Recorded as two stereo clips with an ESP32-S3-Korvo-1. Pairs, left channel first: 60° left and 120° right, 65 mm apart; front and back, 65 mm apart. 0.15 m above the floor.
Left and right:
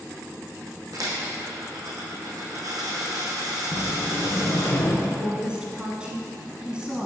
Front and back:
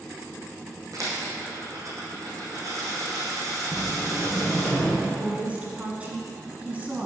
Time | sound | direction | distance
0.9 | a dropped coin | 145° right | 2.5 m
3.7 | a sliding door | 60° left | 1.4 m
5.0 | a woman speaking | 165° right | 1.0 m